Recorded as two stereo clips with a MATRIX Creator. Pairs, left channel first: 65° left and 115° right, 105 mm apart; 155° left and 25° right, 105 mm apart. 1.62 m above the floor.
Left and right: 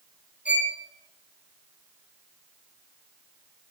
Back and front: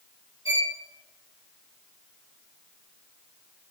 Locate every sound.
0.5 s a violin: 170° left, 1.9 m